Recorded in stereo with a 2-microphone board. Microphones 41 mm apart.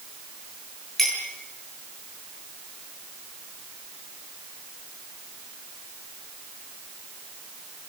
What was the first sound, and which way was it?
A clink, 5° left (ahead or behind).